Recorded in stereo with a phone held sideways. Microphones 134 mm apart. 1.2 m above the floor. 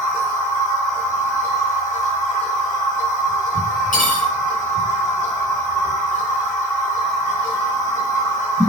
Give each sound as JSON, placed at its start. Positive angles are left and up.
{"t": 0.0, "sound": "a machine running", "side_deg": 25, "distance_m": 1.7}
{"t": 3.9, "sound": "cutlery clinking", "side_deg": 75, "distance_m": 2.0}